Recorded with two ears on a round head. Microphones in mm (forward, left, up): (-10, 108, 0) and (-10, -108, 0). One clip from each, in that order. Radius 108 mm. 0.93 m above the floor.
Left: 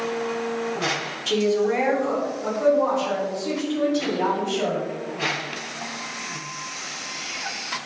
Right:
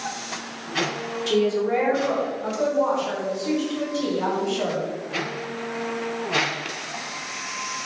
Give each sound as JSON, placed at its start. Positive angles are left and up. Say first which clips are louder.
{"t": 1.3, "sound": "a woman speaking", "louder": "even", "side_deg": 10, "distance_m": 1.9}